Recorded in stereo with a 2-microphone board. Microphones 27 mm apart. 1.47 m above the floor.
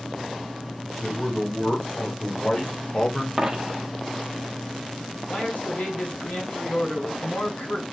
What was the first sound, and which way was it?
A man speaking, 40° left (ahead or behind).